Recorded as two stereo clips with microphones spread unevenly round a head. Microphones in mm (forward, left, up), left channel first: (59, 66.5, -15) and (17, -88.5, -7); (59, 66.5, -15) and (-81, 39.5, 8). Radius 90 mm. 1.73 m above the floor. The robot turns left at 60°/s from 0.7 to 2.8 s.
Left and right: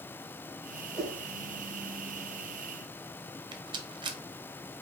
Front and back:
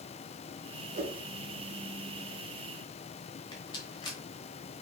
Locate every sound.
0.9 s a whoosh: 170° left, 1.3 m; by 1.2 s 155° left, 1.3 m
3.5 s a rattle: 55° right, 0.9 m